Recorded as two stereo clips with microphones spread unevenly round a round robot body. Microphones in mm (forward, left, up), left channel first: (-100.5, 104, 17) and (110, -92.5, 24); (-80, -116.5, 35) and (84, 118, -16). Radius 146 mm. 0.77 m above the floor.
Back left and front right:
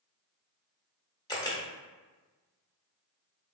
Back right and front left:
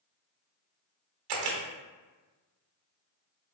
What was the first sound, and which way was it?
A camera shutter, 60° left.